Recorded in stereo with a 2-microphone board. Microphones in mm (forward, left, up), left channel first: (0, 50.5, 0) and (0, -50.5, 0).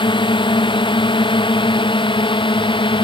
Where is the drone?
55° left (ahead or behind).